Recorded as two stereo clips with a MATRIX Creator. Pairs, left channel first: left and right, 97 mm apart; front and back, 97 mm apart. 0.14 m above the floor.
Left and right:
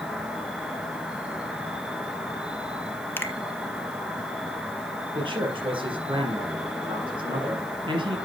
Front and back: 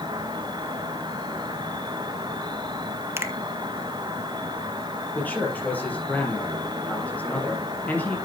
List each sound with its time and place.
0.0 s an insect: 170° right, 1.8 m
3.2 s a finger snap: 135° left, 1.2 m
5.2 s a man speaking: 70° right, 4 m